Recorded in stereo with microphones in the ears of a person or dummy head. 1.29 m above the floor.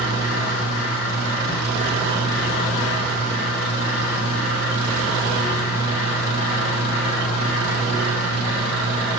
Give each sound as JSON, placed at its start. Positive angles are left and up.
{"t": 0.0, "sound": "a fan", "side_deg": 45, "distance_m": 2.0}